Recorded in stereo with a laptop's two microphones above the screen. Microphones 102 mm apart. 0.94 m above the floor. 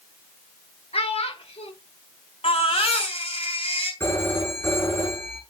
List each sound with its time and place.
0.9 s a child speaking: 80° left, 1.4 m
2.4 s a baby crying: 75° left (ahead or behind), 4 m
4.0 s a phone ringing: 25° left (ahead or behind), 5.5 m